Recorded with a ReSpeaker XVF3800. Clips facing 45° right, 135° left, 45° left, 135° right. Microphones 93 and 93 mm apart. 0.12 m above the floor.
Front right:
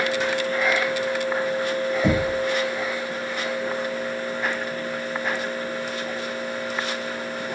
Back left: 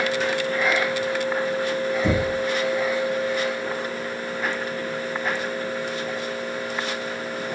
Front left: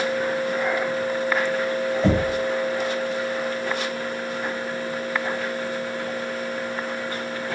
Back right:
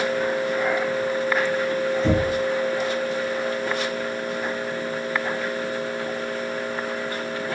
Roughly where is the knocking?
Ahead.